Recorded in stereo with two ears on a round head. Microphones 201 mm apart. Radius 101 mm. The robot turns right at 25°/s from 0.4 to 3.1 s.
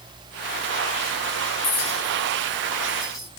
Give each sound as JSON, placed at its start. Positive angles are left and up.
{"t": 1.6, "sound": "a clink", "side_deg": 35, "distance_m": 3.0}